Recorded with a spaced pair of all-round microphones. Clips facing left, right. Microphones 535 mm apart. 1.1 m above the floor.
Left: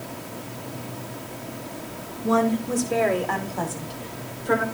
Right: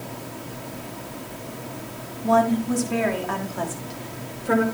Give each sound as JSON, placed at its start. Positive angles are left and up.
{"t": 2.2, "sound": "a woman speaking", "side_deg": -10, "distance_m": 4.0}